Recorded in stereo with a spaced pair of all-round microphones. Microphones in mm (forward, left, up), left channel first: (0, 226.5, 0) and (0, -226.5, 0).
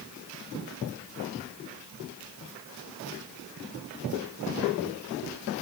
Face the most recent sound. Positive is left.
No sound to turn to.